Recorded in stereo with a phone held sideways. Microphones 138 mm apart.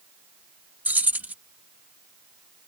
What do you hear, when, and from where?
0.8 s keys jangling: 10° right (ahead or behind)